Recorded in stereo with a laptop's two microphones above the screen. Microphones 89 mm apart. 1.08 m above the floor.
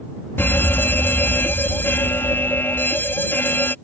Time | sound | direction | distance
0.4 | a fire alarm | 25° left (ahead or behind) | ?